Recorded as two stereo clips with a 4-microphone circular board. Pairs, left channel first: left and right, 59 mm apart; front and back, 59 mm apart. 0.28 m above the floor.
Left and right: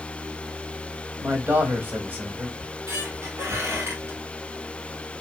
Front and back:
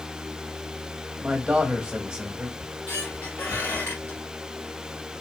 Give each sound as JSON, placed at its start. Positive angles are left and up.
{"t": 1.2, "sound": "a man speaking", "azimuth_deg": -115, "distance_m": 1.2}
{"t": 2.6, "sound": "a squeak", "azimuth_deg": -50, "distance_m": 1.8}